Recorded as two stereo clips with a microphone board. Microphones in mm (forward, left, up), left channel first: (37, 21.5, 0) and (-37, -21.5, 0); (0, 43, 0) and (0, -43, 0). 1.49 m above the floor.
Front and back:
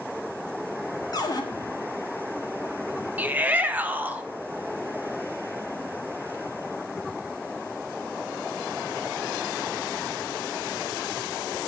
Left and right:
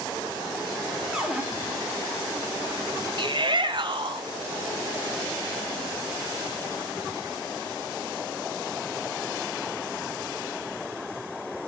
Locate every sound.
1.1 s a cupboard door: 10° right, 1.3 m
3.2 s a shout: 80° right, 1.0 m